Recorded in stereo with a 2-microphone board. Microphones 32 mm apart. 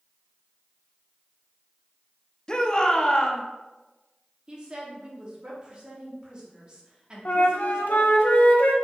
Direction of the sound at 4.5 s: 30° right (ahead or behind).